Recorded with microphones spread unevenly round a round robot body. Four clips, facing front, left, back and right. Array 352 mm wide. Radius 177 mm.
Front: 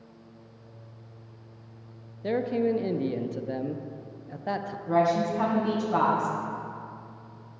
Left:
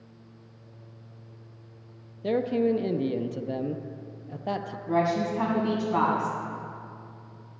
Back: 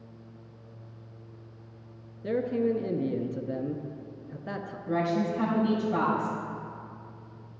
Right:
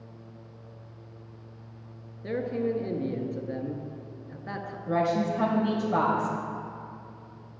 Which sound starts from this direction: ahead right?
A woman speaking, at 4.9 s.